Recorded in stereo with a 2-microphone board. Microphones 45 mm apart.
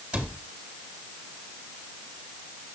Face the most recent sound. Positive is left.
turn(degrees=-25)  # may be behind; listen again after turning